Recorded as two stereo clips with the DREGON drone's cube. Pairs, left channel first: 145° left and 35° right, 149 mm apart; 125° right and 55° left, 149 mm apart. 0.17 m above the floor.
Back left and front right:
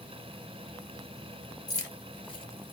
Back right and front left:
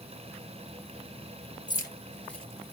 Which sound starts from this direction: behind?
Keys jangling, at 1.7 s.